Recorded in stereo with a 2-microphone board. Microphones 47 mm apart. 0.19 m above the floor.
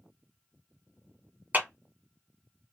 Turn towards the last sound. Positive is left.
turn(degrees=-40)  # may be behind; listen again after turning